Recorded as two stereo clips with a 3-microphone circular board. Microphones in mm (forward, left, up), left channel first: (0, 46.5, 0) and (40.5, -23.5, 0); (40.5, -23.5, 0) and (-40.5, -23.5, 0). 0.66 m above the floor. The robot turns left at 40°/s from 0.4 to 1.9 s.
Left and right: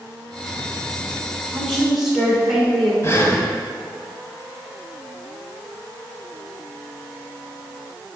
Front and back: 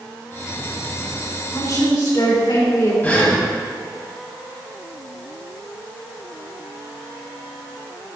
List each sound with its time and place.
1.5 s a woman speaking: 45° left, 2.5 m; by 2.9 s 30° left, 2.5 m
3.0 s breathing: 65° left, 1.2 m